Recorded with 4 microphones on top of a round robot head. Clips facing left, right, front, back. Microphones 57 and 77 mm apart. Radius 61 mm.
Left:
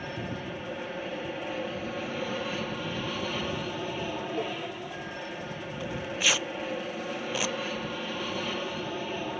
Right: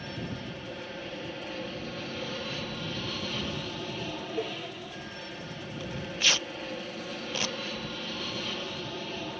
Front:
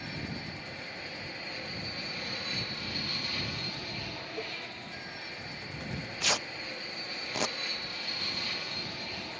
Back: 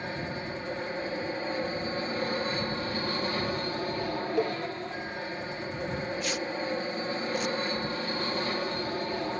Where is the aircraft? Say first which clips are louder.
Left 2 dB, back 5 dB; 155° left.